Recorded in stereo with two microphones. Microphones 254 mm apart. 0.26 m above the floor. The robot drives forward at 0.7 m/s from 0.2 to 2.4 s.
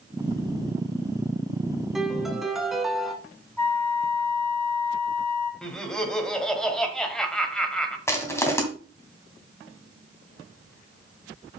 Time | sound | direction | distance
1.9 | a piano | centre (ahead or behind) | 0.9 m
3.6 | a flute | 10° left (ahead or behind) | 2 m
5.6 | laughter | 5° left (ahead or behind) | 1.2 m
8.1 | crushing | 10° left (ahead or behind) | 2.0 m